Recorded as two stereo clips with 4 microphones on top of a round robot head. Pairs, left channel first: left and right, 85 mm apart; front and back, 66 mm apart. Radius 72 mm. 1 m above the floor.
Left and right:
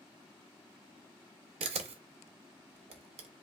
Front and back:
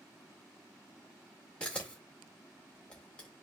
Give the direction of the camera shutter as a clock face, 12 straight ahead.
3 o'clock.